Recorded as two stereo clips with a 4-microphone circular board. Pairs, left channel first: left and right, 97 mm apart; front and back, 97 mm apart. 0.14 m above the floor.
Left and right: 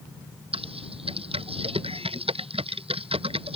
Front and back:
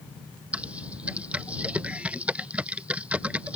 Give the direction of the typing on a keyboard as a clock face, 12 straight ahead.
3 o'clock.